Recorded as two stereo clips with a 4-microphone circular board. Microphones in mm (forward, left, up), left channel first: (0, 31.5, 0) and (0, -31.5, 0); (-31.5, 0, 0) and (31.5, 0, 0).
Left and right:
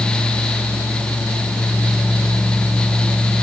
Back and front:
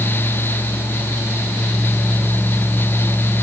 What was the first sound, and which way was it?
Only background noise.